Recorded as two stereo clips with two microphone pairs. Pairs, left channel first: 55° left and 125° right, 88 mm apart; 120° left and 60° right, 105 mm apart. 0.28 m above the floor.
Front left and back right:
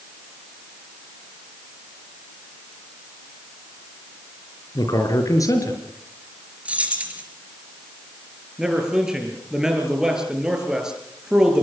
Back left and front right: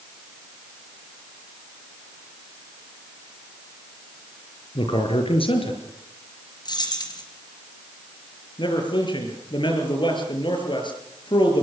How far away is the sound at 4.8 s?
About 5 m.